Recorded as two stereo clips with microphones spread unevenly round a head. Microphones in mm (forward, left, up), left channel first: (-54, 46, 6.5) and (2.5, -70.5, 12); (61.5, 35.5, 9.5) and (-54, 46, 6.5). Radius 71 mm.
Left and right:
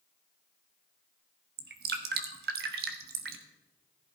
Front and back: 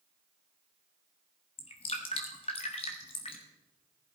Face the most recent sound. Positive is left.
turn(degrees=-60)